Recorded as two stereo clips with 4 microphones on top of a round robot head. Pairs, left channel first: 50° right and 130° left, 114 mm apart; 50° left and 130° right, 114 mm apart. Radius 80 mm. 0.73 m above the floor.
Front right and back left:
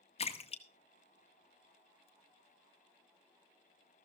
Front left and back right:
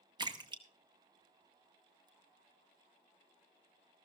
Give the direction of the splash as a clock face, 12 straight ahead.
3 o'clock.